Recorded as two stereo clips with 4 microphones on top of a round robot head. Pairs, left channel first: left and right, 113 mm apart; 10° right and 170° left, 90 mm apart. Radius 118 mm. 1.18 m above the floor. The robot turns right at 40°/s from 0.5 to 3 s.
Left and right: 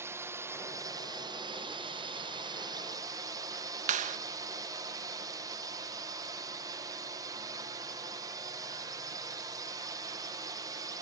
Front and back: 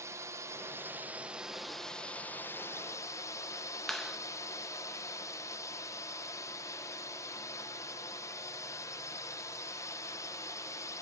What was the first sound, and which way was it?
A drone, 150° right.